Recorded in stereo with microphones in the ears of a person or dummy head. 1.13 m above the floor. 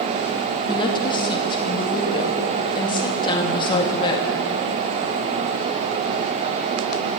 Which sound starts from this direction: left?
A woman speaking, at 0.7 s.